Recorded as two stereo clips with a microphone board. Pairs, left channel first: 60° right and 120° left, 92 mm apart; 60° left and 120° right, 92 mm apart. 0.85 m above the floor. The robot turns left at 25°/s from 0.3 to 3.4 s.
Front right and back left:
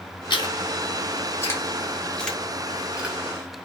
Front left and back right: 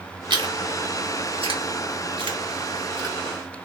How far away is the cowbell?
No cowbell in this recording.